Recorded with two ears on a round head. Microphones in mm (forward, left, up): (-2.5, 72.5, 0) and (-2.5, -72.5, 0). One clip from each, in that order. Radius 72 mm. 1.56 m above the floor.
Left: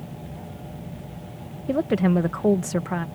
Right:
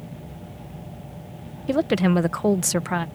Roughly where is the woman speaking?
Right.